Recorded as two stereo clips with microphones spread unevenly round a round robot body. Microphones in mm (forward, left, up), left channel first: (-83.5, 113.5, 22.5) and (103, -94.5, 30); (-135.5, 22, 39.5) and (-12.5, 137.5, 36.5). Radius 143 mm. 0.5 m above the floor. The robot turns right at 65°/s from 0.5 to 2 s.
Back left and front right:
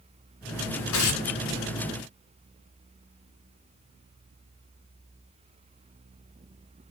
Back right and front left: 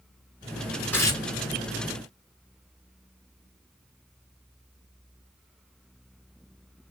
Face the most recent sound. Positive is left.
turn(degrees=-145)